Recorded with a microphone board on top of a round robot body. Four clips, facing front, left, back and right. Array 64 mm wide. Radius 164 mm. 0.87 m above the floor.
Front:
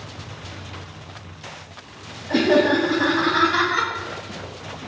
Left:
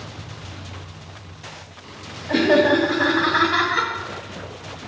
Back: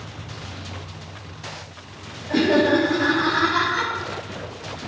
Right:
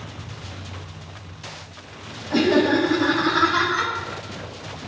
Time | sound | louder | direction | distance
2.3 | laughter | left 2 dB, front 1 dB | 85° left | 5.5 m